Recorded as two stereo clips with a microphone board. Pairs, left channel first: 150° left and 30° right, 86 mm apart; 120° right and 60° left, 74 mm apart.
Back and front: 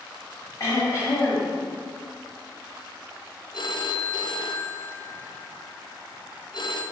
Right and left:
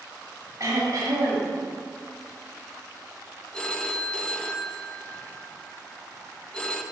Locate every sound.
0.6 s throat clearing: 100° left, 2.5 m
3.5 s a phone ringing: 160° left, 0.6 m